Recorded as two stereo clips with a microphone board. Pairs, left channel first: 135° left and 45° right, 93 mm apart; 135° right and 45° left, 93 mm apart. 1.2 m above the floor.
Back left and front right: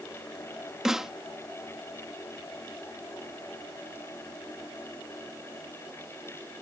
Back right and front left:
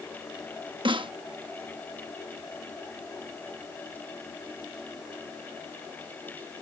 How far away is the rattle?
I don't hear a rattle.